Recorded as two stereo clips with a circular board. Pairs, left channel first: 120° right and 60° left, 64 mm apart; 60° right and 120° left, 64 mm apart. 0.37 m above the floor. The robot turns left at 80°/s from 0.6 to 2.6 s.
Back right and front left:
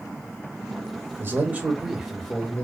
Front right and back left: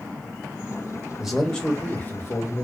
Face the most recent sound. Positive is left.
turn(degrees=-70)